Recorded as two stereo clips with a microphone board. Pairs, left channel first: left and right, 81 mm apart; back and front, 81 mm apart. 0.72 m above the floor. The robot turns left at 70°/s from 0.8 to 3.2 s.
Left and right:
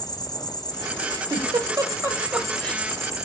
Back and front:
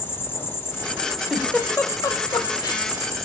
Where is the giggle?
95° right, 0.7 m; by 2.8 s 160° left, 0.7 m.